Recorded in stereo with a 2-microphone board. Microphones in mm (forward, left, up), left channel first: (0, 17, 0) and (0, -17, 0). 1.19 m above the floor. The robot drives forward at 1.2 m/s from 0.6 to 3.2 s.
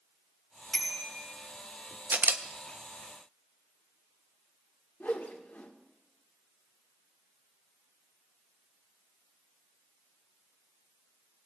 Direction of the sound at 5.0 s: 60° left (ahead or behind).